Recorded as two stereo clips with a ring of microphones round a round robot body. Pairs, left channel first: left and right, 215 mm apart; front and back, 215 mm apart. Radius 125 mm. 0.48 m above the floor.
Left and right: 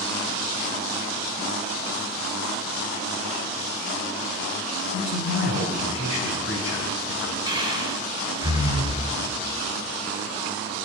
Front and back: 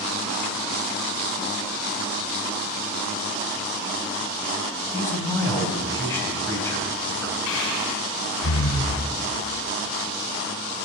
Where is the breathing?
20° right, 3.5 m.